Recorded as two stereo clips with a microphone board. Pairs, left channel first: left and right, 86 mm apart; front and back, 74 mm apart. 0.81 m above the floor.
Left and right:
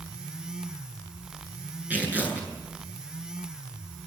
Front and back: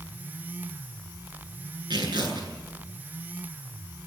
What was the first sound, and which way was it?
Tearing paper, 160° right.